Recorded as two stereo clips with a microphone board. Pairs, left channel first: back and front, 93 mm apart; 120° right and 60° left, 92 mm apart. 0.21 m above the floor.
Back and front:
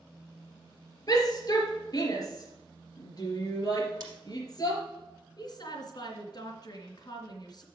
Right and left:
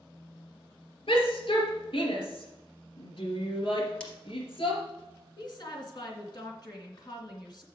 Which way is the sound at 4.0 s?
40° right.